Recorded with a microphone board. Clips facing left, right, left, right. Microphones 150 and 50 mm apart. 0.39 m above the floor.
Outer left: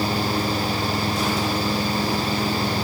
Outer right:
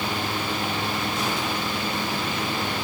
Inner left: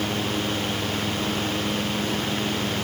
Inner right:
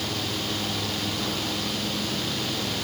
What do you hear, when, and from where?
Only background noise.